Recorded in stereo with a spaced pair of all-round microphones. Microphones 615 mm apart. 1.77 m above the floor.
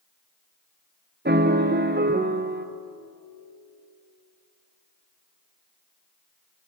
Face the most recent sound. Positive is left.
turn(degrees=-15)  # may be behind; listen again after turning